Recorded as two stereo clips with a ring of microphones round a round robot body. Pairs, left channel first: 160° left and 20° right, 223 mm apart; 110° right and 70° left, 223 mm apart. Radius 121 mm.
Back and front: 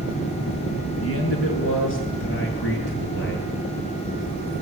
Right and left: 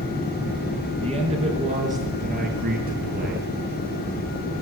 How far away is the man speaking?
About 6 m.